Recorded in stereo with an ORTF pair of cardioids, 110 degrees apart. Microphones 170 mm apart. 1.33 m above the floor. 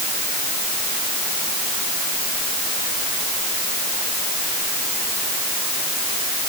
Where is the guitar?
No guitar in this recording.